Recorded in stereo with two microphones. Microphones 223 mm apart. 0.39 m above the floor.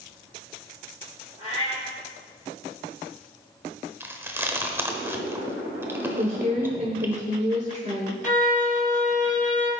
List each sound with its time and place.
1.4 s a cat meowing: 30° left (ahead or behind), 4 m
4.0 s chewing: 10° right (ahead or behind), 0.9 m
6.2 s a woman speaking: 30° right (ahead or behind), 1.2 m
8.2 s a violin: 35° left (ahead or behind), 2.5 m